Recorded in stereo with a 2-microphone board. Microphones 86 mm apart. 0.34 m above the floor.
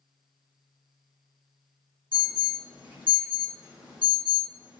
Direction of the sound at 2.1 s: 60° left (ahead or behind).